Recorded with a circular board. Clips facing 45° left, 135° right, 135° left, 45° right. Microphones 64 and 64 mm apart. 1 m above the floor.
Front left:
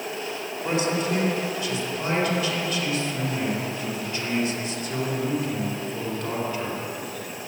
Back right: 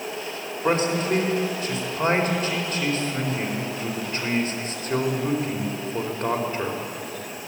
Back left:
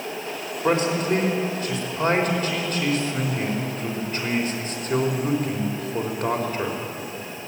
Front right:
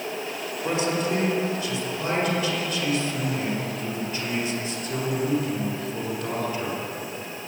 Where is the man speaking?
175° left, 4.5 m.